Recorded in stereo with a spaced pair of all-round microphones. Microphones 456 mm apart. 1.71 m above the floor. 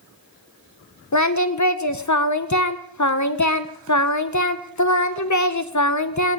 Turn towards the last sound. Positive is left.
turn(degrees=40)  # may be behind; listen again after turning